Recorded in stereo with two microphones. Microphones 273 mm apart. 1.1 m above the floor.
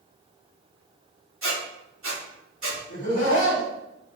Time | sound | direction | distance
1.4 | a squeak | 50° right (ahead or behind) | 1.1 m
2.9 | laughter | 75° left (ahead or behind) | 1.5 m